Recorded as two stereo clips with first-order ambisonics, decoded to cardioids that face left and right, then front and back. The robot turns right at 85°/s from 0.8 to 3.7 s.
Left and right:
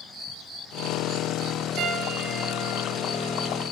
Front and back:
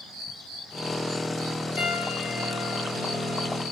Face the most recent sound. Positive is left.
turn(degrees=125)